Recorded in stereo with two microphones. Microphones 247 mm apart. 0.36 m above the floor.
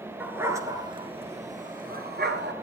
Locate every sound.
0.2 s a dog barking: 5° right (ahead or behind), 2 m; by 2.5 s 45° right (ahead or behind), 2.5 m